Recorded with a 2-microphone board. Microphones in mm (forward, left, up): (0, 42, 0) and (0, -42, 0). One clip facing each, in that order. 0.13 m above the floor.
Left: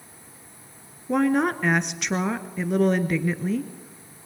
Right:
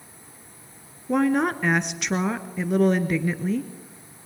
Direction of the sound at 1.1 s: Centre (ahead or behind).